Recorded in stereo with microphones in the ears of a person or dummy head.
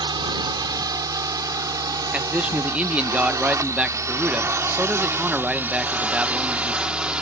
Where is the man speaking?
5° right (ahead or behind).